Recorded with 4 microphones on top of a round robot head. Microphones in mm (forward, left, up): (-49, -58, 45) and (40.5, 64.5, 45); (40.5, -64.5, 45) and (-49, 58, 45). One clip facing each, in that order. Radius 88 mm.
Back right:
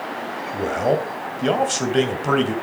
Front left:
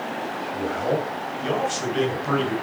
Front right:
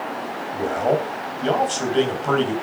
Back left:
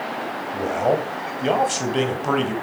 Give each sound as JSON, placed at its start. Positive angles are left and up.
{"t": 0.5, "sound": "a man speaking", "azimuth_deg": -155, "distance_m": 3.0}